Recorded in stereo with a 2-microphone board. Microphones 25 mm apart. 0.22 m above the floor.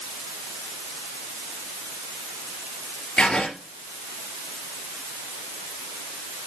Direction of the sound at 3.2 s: 50° left (ahead or behind).